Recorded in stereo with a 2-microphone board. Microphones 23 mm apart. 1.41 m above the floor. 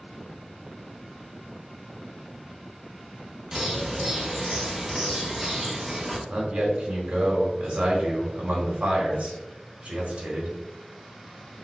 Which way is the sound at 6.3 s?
80° right.